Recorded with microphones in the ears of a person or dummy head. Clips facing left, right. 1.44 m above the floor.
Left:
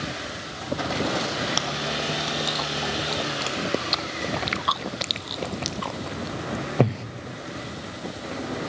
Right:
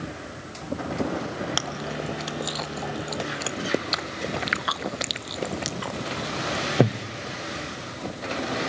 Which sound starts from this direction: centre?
Chewing, at 1.6 s.